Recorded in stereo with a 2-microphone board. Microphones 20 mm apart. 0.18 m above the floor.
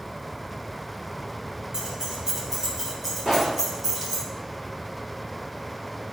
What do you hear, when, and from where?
1.7 s keys jangling: 35° right (ahead or behind), 3.5 m; by 4.2 s centre (ahead or behind), 3 m
3.2 s a pop: 30° right (ahead or behind), 3.5 m